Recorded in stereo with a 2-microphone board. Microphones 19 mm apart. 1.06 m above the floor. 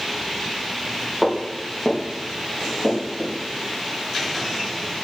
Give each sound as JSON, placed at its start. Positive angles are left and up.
{"t": 1.2, "sound": "footsteps", "side_deg": -5, "distance_m": 3.0}